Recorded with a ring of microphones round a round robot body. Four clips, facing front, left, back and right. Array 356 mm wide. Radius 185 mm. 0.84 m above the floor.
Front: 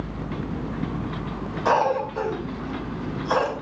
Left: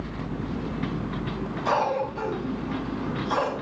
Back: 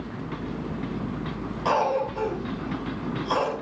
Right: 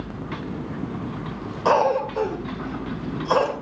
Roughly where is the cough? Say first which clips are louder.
Right 6 dB, front 2 dB; right.